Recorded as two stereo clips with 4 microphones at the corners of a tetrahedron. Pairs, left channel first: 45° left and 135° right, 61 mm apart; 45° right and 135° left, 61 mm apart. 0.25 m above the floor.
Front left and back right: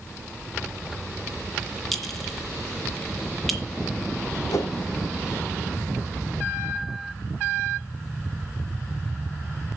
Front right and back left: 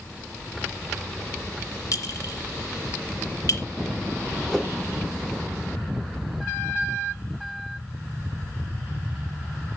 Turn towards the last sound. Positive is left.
turn(degrees=40)